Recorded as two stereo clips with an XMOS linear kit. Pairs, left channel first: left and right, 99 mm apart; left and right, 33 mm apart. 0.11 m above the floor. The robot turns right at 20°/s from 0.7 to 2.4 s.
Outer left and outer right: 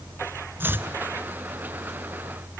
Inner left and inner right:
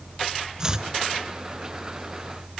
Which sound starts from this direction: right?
Chopping, at 0.6 s.